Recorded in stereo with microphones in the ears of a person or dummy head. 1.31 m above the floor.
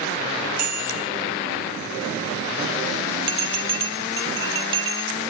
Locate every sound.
0.6 s a bicycle bell: 50° right (ahead or behind), 3 m
3.3 s a bell: 30° right (ahead or behind), 0.7 m